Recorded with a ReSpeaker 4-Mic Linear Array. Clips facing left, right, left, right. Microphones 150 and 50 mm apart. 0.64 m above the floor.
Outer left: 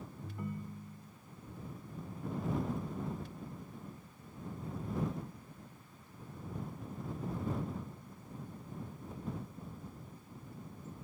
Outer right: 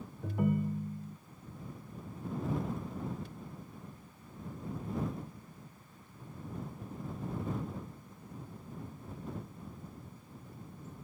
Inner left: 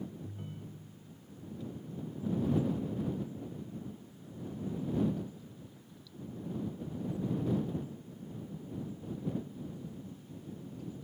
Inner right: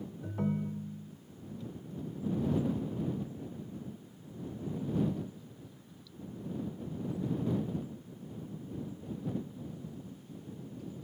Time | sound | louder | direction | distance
0.2 | a ringtone | outer right 12 dB, inner right 12 dB | 80° right | ?